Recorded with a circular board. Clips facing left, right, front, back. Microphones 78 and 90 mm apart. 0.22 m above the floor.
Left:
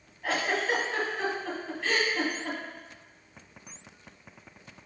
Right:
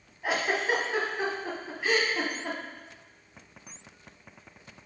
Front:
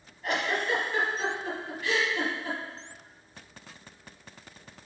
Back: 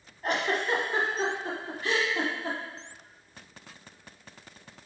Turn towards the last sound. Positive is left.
turn(degrees=-160)